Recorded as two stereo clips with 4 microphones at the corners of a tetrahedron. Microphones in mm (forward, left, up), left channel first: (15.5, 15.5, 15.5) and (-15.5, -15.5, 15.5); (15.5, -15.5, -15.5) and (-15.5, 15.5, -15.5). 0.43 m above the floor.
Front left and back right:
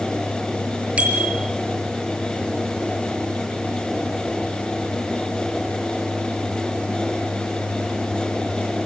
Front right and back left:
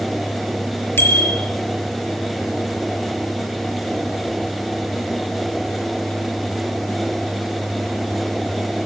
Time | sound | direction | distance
1.0 | a bicycle bell | 75° right | 6 m